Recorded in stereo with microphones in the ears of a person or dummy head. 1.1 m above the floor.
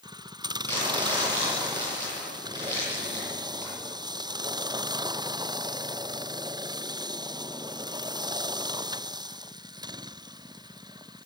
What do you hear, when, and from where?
0.7 s crumpling: 15° left (ahead or behind), 10 m